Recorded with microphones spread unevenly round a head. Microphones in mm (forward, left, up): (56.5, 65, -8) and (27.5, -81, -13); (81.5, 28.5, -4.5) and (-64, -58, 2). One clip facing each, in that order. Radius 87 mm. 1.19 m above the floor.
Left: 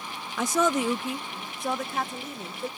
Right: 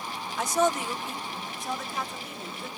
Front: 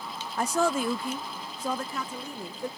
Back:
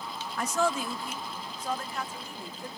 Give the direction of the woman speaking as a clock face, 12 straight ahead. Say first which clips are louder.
Left 1 dB, front 3 dB; 9 o'clock.